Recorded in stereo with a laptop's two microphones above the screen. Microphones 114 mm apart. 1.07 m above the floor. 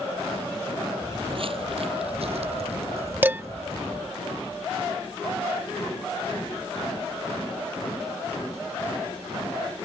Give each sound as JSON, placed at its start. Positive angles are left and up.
{"t": 1.0, "sound": "footsteps", "side_deg": -50}
{"t": 3.2, "sound": "dishes clattering", "side_deg": -20}